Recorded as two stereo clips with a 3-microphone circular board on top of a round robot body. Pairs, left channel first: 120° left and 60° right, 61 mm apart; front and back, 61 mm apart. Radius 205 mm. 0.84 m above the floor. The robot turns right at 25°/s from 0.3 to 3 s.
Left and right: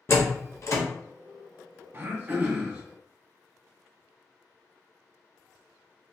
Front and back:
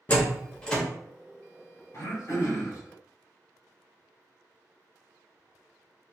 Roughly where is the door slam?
Ahead left.